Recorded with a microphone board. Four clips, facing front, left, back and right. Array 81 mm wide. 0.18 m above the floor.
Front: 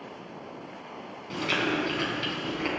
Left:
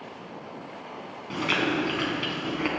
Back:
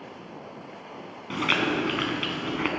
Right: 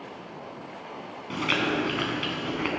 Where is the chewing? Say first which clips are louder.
Even, back 2 dB; 170° right, 1.4 m.